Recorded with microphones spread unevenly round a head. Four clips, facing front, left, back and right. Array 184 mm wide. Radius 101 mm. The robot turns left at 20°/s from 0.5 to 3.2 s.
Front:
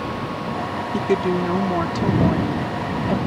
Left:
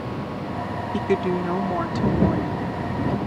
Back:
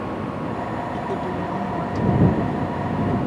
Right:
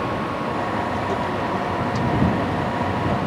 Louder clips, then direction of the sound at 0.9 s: Left 1 dB, front 10 dB; 40° left.